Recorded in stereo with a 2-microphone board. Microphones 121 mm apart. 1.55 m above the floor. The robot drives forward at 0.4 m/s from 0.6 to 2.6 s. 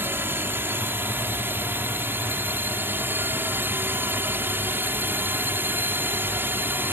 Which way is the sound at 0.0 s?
15° right (ahead or behind).